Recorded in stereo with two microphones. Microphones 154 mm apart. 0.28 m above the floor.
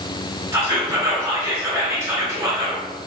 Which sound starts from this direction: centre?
Whispering, at 0.5 s.